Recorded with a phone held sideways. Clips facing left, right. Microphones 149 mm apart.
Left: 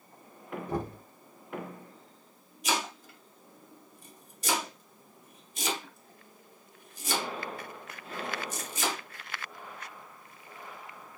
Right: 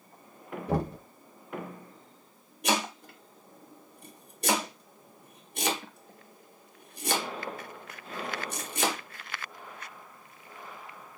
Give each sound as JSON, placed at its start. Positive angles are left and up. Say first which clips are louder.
{"t": 0.7, "sound": "knocking", "louder": "right 5 dB", "side_deg": -75, "distance_m": 0.9}
{"t": 2.6, "sound": "chopping", "louder": "right 3 dB", "side_deg": -65, "distance_m": 1.3}